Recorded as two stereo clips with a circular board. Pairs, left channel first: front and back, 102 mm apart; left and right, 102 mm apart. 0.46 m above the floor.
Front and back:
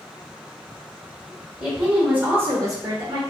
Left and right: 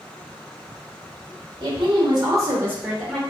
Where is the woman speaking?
95° right, 1.5 m; by 3.2 s straight behind, 1.1 m.